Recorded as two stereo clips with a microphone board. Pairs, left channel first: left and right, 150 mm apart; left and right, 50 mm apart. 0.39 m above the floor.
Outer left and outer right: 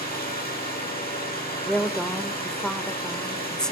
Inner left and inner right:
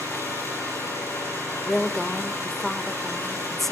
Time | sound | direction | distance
0.0 | an engine running | 85° left | 9.5 m
1.7 | a woman speaking | 5° left (ahead or behind) | 0.9 m